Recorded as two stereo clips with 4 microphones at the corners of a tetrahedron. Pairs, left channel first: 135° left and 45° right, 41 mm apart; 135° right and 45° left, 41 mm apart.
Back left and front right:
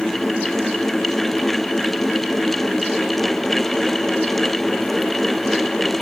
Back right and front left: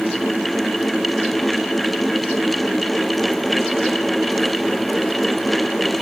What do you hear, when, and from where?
Only background noise.